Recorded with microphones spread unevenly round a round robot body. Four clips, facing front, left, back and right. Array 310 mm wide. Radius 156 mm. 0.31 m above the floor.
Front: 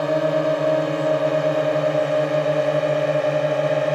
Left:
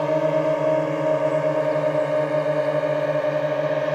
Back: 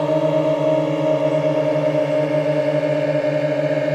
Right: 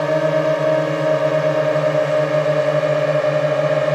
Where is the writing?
No writing in this recording.